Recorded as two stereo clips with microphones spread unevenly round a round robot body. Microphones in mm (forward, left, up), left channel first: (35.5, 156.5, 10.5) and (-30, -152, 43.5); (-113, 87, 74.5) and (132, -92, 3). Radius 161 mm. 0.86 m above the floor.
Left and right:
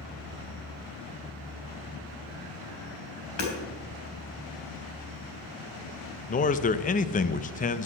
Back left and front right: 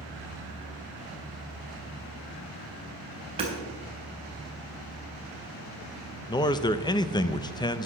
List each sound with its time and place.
3.4 s hammering: 35° left, 3.5 m
6.3 s a man speaking: 55° left, 0.6 m